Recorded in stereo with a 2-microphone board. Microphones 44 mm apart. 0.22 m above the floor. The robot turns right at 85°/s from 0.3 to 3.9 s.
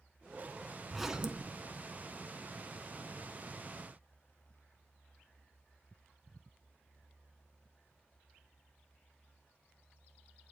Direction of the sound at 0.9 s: 175° left.